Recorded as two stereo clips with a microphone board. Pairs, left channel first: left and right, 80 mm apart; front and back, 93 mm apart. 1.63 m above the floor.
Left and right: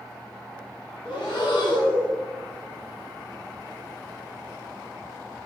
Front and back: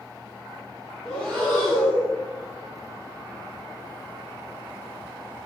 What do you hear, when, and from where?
1.1 s breathing: 80° left, 1.1 m